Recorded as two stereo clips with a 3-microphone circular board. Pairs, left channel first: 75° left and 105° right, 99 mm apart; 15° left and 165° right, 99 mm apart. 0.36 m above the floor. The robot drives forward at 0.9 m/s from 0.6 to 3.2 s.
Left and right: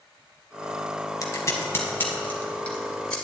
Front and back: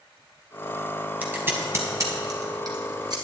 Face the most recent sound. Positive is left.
turn(degrees=155)